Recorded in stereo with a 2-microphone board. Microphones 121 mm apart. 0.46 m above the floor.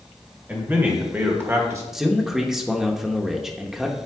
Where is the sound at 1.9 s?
5° right (ahead or behind), 0.8 m.